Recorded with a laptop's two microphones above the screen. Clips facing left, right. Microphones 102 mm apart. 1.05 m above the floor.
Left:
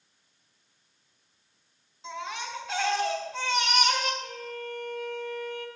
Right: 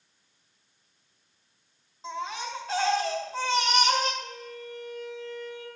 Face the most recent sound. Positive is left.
turn(degrees=-30)  # may be behind; listen again after turning